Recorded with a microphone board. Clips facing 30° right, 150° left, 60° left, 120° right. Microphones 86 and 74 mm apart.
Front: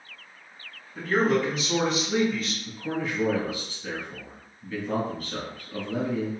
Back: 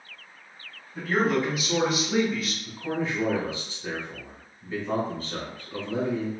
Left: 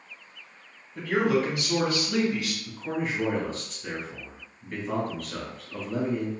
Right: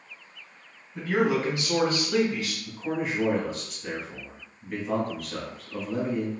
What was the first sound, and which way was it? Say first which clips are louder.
A man speaking: front 1 dB, even; 135° right.